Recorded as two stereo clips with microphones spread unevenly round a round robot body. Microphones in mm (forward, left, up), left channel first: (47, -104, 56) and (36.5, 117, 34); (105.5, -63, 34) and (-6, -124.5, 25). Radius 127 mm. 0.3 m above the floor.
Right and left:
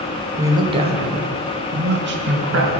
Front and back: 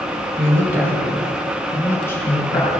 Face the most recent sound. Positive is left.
turn(degrees=95)